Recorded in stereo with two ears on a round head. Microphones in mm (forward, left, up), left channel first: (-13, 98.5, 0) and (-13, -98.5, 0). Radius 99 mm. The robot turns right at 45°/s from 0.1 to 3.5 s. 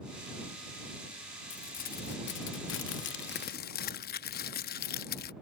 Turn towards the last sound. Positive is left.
turn(degrees=125)